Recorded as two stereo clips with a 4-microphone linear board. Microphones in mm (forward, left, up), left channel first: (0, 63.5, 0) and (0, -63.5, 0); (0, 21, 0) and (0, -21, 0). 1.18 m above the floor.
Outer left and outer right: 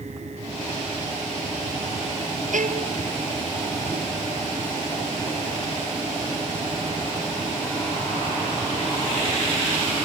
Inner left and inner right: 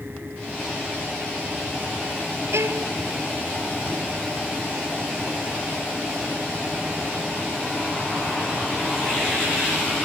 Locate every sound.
2.5 s a violin: 75° right (ahead or behind)